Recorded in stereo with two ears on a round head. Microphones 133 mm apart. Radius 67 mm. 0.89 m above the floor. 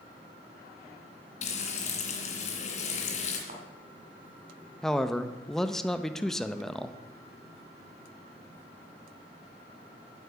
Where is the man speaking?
5° left (ahead or behind), 0.6 m.